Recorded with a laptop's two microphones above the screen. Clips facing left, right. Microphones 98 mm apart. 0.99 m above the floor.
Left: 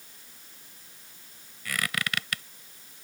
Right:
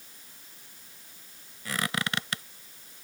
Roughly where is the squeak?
Right.